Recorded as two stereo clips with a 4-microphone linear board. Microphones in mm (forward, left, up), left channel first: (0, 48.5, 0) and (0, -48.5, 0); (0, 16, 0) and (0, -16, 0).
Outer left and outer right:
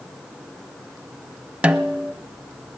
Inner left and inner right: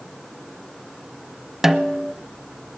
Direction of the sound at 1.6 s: 10° right (ahead or behind).